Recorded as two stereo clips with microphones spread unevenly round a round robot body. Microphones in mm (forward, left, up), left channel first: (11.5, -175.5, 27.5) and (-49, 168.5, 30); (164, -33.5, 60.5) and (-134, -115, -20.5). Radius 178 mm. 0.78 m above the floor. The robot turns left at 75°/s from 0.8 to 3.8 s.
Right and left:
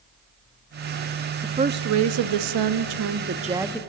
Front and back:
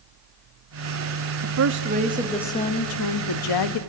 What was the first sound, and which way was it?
A woman speaking, straight behind.